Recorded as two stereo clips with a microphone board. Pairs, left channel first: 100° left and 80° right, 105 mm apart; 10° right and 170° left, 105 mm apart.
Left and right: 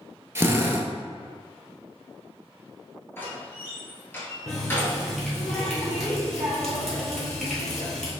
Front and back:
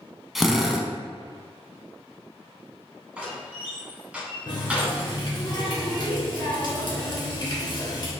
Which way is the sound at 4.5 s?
15° left.